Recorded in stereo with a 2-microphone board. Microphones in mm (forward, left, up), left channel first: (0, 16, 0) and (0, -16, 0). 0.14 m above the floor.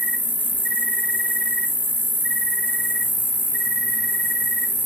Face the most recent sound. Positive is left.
turn(degrees=85)